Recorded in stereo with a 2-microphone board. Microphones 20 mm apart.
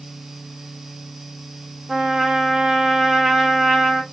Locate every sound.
1.9 s a trumpet: 30° right (ahead or behind), 0.8 m